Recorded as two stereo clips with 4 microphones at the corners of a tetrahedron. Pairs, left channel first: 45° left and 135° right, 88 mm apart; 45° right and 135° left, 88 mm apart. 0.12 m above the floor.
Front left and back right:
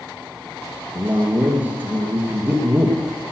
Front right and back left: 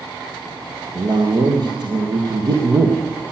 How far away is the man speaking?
About 3 m.